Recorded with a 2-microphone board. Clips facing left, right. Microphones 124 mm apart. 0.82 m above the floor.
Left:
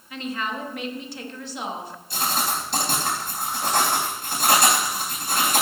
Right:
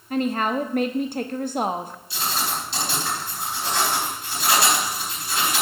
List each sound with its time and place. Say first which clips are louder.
0.1 s a woman speaking: right 7 dB; 55° right (ahead or behind), 1.1 m
2.1 s writing: left 2 dB; 55° left (ahead or behind), 4 m